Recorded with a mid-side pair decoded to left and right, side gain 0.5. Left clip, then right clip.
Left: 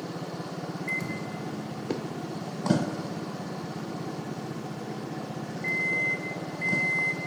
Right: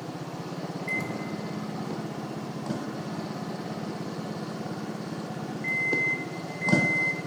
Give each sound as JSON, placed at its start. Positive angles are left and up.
{"t": 0.9, "sound": "a microwave", "azimuth_deg": 0, "distance_m": 0.9}